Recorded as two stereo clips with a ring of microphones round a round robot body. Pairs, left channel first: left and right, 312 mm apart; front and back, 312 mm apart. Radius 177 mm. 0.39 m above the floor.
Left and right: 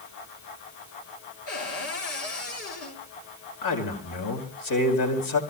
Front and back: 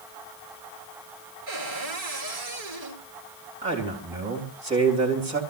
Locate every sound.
1.5 s a cupboard door: 145° left, 6 m
3.6 s a man speaking: 110° left, 3.5 m